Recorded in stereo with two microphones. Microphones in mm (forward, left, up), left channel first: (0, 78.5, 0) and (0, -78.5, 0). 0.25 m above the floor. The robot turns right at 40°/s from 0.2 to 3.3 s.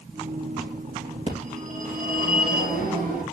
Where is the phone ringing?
140° right, 3.5 m; by 3.2 s 65° right, 3.5 m.